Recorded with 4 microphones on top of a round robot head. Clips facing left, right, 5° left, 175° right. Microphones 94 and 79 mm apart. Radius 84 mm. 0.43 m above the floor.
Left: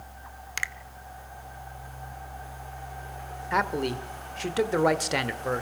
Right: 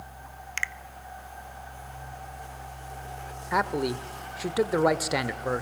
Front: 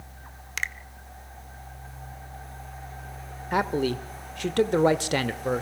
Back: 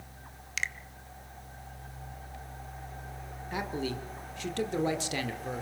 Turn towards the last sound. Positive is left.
turn(degrees=-5)